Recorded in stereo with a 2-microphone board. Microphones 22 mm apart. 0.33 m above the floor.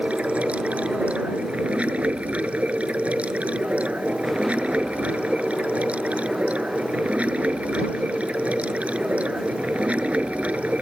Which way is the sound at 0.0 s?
55° right (ahead or behind).